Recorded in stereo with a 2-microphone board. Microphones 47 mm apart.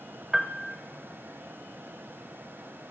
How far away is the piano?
About 0.5 m.